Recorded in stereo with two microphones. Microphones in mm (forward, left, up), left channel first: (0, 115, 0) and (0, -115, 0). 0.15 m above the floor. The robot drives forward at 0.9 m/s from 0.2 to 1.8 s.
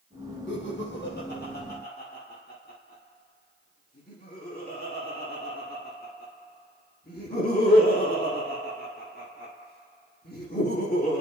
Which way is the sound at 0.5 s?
55° left (ahead or behind).